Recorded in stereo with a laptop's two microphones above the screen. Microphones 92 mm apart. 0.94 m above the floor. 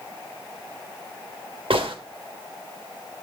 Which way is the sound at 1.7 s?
65° right (ahead or behind).